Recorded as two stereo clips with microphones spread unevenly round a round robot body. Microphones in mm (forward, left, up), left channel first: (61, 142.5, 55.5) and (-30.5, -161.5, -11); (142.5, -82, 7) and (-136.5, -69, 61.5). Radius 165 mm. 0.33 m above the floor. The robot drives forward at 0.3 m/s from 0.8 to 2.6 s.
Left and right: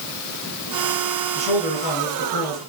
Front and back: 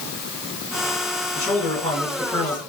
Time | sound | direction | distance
1.4 | a man speaking | 70° right | 2.0 m